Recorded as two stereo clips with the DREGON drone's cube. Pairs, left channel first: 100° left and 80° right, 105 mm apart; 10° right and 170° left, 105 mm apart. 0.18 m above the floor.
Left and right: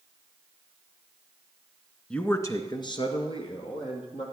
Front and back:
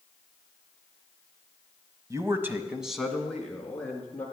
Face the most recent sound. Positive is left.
turn(degrees=65)